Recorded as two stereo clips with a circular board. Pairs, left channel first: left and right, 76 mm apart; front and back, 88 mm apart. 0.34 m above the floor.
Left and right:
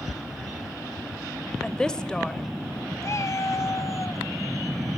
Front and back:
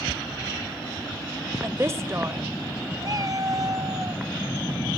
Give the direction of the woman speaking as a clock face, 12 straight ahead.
7 o'clock.